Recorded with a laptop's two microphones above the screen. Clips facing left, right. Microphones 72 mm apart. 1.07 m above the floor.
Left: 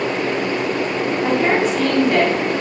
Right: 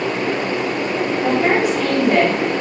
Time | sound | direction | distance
1.2 | a woman speaking | 15° right (ahead or behind) | 3.5 m